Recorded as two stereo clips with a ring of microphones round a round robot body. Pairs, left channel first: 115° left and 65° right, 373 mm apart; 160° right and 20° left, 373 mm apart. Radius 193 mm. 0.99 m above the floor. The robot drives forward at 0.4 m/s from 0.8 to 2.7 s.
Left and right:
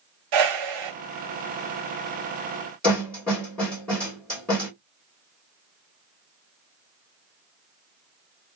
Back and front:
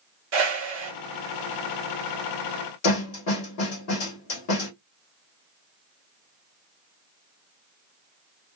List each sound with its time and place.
0.3 s a whoosh: 35° right, 1.4 m
2.8 s a snare drum: 160° right, 1.7 m